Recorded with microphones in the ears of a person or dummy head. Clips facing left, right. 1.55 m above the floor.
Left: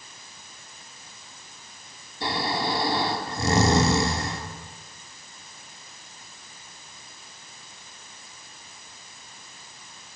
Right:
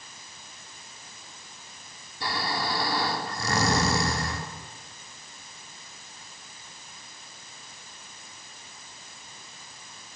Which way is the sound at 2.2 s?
20° left (ahead or behind).